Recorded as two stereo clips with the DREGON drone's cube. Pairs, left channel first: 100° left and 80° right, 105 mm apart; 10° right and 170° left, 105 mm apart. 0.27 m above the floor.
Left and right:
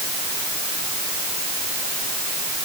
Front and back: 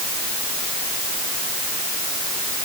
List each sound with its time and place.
Only background noise.